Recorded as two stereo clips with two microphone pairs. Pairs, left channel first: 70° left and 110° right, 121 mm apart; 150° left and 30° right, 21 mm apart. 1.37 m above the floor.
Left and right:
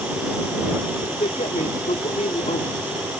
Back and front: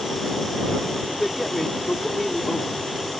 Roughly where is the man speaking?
Left.